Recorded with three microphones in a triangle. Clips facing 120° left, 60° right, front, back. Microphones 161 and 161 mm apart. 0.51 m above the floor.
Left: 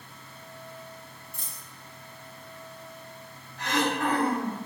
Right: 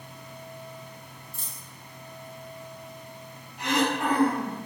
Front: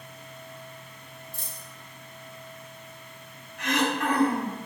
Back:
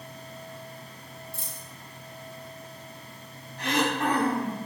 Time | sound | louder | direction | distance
1.3 | a dropped coin | right 1 dB, back 1 dB | 115° right | 1.1 m
3.6 | throat clearing | right 2 dB, even | 130° right | 0.6 m